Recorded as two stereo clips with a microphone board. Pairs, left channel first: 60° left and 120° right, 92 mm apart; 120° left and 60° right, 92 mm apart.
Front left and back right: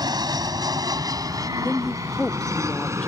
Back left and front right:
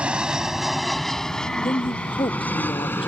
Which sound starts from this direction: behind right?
An aircraft, at 0.0 s.